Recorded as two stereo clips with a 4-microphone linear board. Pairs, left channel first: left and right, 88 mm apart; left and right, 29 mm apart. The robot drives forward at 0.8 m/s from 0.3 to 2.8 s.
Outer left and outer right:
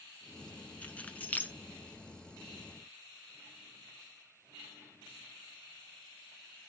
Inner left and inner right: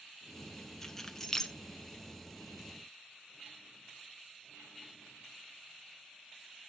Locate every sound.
0.8 s keys jangling: 15° left (ahead or behind), 1.8 m; by 1.5 s 20° left (ahead or behind), 1.4 m